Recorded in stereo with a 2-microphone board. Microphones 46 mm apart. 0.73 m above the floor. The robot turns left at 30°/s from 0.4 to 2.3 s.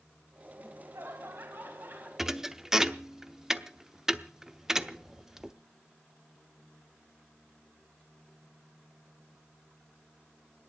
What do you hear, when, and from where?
0.6 s laughter: 90° right, 4 m; by 2.1 s 140° right, 4 m
2.2 s a thud: 5° right (ahead or behind), 0.7 m; by 5.5 s 10° right (ahead or behind), 0.7 m